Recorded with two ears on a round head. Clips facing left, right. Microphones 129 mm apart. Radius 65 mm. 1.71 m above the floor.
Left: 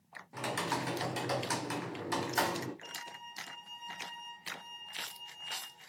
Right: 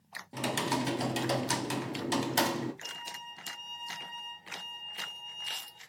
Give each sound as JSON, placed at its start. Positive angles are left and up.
{"t": 0.3, "sound": "typing on a keyboard", "side_deg": -30, "distance_m": 1.4}
{"t": 2.8, "sound": "a violin", "side_deg": -45, "distance_m": 5.0}